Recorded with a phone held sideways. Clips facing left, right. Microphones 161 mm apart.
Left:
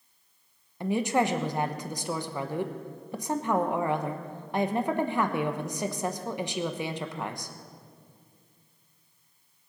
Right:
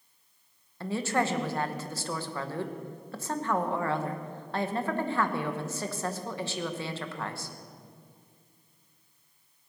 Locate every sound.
0.8 s a woman speaking: 15° left (ahead or behind), 1.0 m